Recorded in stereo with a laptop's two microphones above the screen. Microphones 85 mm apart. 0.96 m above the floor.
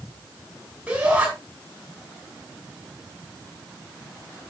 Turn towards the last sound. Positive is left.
turn(degrees=-15)  # may be behind; listen again after turning